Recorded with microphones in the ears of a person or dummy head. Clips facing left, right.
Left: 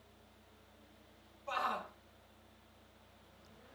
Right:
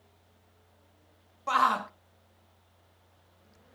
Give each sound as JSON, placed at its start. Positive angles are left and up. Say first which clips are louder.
{"t": 1.5, "sound": "a shout", "louder": "right 10 dB", "side_deg": -85, "distance_m": 0.6}